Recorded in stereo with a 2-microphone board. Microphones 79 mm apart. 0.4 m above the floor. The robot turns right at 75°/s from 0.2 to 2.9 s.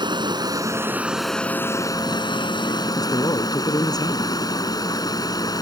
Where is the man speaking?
55° left (ahead or behind).